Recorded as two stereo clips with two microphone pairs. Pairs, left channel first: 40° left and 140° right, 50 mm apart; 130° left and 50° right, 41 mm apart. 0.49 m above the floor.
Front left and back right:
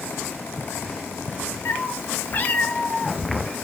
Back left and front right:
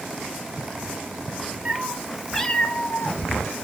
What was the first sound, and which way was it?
A cat meowing, 5° left.